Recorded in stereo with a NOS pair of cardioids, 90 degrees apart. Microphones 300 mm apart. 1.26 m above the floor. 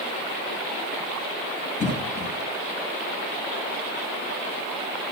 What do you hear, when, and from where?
1.8 s a cough: 25° left, 2.5 m